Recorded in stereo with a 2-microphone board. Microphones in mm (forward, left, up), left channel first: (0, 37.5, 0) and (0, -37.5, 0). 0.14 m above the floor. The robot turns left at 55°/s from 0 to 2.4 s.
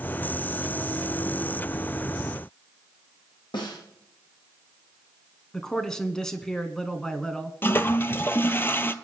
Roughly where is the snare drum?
Left.